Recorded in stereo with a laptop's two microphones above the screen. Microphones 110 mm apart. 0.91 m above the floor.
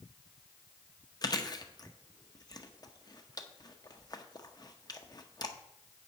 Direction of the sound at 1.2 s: 35° left (ahead or behind).